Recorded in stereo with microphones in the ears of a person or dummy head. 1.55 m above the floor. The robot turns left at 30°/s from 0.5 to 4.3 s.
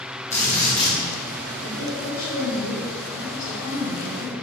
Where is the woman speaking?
100° left, 3.5 m; by 4.3 s 20° left, 3.5 m.